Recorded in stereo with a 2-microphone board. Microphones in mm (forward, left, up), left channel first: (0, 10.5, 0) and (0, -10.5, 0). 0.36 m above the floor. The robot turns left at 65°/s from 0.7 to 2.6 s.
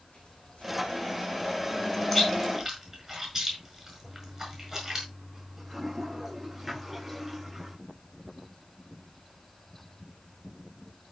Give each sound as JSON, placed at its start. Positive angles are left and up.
{"t": 0.1, "sound": "scissors", "side_deg": 80, "distance_m": 8.5}
{"t": 2.1, "sound": "chewing", "side_deg": 10, "distance_m": 5.5}
{"t": 4.0, "sound": "a toilet flushing", "side_deg": -10, "distance_m": 8.0}